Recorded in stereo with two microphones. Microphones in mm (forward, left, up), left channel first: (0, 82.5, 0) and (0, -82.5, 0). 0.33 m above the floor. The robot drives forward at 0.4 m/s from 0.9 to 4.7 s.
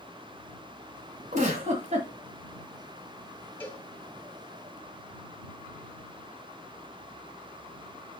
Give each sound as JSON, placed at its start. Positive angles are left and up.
{"t": 1.3, "sound": "a giggle", "side_deg": -50, "distance_m": 1.8}
{"t": 3.6, "sound": "a cowbell", "side_deg": 10, "distance_m": 1.9}